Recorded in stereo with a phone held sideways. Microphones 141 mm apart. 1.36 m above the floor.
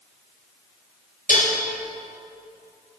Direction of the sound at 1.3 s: 65° left (ahead or behind).